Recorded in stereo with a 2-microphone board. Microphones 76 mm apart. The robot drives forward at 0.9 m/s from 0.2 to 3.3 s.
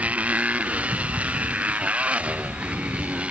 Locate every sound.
0.0 s a motorcycle: 20° right (ahead or behind); by 3.3 s 15° right (ahead or behind)